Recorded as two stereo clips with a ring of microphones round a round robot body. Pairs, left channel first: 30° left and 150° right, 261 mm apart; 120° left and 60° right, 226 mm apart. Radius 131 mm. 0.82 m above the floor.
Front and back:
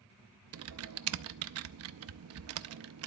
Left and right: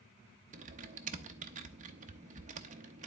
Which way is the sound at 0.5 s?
120° right.